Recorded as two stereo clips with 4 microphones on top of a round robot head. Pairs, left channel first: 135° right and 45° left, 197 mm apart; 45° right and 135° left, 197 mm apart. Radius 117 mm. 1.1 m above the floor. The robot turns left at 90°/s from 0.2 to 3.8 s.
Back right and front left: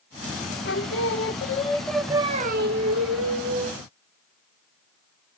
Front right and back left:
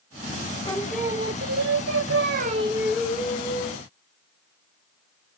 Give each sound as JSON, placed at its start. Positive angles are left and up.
{"t": 0.7, "sound": "singing", "azimuth_deg": -110, "distance_m": 0.8}